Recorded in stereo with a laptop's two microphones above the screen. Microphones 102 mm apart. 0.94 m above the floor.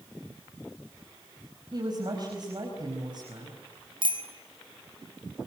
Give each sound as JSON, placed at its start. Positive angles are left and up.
{"t": 1.7, "sound": "a woman speaking", "side_deg": -45, "distance_m": 5.0}
{"t": 4.0, "sound": "a bicycle bell", "side_deg": -55, "distance_m": 4.5}